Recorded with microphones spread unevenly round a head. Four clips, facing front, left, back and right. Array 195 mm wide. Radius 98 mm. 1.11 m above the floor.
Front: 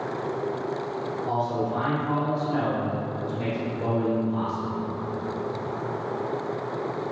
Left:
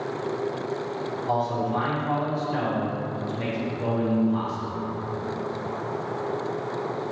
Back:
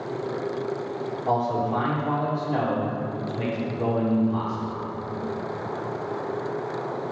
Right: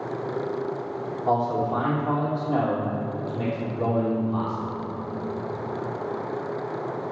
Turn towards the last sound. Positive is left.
turn(degrees=-110)